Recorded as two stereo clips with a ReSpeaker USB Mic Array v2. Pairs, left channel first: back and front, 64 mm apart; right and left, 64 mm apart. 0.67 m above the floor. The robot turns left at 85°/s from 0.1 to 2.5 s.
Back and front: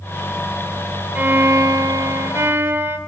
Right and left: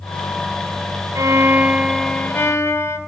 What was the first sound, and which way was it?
A violin, 65° left.